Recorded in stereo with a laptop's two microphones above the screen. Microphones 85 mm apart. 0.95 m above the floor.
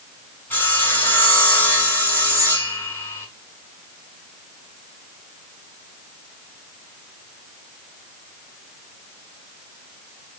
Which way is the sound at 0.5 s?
25° left (ahead or behind).